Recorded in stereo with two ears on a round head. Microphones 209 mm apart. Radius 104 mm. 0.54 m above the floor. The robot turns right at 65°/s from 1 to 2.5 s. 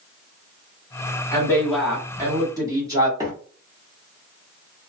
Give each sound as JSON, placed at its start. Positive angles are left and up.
{"t": 1.3, "sound": "a woman speaking", "side_deg": 15, "distance_m": 1.3}
{"t": 3.2, "sound": "a microwave", "side_deg": -15, "distance_m": 0.9}